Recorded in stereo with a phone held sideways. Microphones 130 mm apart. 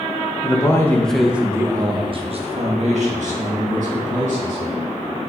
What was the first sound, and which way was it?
A man speaking, 30° left (ahead or behind).